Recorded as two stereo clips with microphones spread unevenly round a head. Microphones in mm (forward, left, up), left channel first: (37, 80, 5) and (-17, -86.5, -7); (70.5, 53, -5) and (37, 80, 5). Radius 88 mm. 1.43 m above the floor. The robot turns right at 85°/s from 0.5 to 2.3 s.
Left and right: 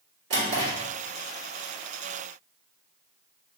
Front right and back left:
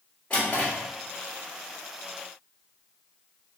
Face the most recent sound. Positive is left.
turn(degrees=25)